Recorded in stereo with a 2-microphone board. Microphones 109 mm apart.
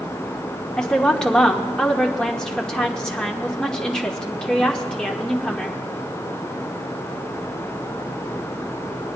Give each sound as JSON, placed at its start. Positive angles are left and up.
{"t": 0.8, "sound": "a woman speaking", "side_deg": 5, "distance_m": 1.1}